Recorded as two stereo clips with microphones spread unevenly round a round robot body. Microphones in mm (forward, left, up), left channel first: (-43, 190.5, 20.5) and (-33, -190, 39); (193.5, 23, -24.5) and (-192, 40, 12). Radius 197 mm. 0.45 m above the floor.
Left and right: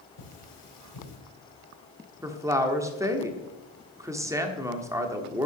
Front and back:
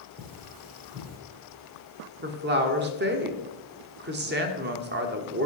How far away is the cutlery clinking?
About 5.5 m.